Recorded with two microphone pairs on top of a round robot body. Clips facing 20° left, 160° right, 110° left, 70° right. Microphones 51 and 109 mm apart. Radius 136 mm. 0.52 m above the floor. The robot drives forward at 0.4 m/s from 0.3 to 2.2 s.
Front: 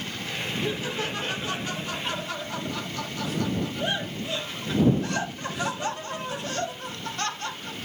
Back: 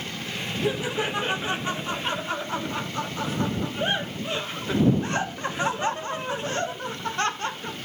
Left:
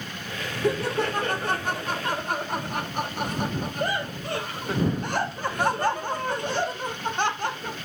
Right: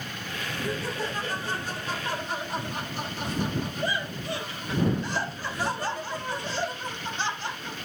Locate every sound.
0.6 s laughter: 125° left, 1.5 m; by 7.8 s 140° left, 1.9 m